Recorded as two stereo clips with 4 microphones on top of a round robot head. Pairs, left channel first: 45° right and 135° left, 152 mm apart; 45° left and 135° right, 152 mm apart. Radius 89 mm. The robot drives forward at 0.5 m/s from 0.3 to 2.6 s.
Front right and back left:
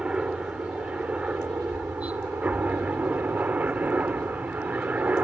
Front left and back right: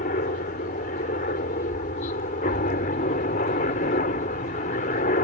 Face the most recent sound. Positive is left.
turn(degrees=60)